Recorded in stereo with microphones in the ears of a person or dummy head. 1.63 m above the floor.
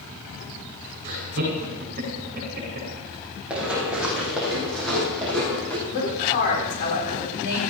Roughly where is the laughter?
Right.